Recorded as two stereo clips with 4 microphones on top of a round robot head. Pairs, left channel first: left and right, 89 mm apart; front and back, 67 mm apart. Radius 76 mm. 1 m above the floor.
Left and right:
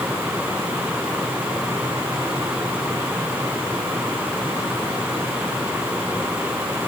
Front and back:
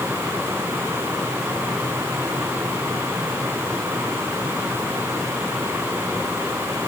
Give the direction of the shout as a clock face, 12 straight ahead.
No shout in this recording.